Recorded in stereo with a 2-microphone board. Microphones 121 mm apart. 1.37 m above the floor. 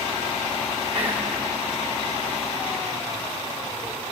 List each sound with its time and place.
0.9 s whispering: 55° right (ahead or behind), 6 m